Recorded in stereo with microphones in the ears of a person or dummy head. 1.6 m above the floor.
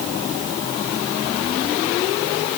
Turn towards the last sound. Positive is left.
No sound to turn to.